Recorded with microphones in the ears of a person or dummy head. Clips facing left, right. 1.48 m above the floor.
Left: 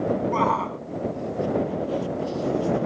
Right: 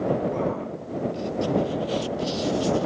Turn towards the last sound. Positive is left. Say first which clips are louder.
# left 2 dB
turn(degrees=65)  # may be behind; listen again after turning